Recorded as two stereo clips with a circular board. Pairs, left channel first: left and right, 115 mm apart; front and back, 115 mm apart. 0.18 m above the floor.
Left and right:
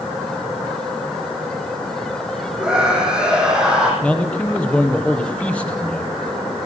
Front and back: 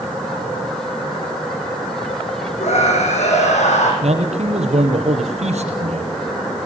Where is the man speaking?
170° left, 5 m.